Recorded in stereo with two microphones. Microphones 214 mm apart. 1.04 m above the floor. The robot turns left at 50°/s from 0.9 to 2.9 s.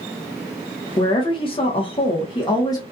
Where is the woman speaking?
20° left (ahead or behind), 0.7 m; by 2.8 s 15° left (ahead or behind), 0.7 m.